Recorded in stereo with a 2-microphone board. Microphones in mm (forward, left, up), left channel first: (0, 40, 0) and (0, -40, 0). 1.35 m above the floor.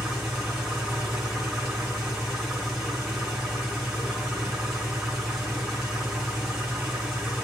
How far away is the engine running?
About 2 m.